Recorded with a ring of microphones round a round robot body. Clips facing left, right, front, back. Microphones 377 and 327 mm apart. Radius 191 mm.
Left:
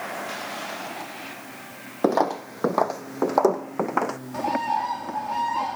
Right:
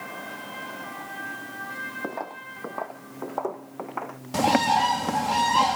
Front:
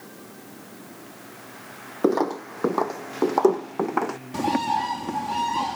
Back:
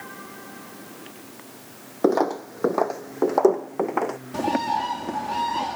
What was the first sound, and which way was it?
Footsteps, 85° left.